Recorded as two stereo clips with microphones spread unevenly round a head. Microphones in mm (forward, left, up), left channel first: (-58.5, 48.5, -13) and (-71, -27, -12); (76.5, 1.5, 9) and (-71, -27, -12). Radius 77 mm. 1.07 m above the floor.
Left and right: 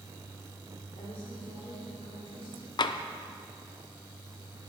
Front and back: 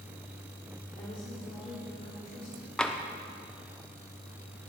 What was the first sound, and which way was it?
A woman speaking, 60° left.